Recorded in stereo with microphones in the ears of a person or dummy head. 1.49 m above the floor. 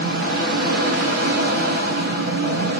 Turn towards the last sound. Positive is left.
turn(degrees=-55)  # may be behind; listen again after turning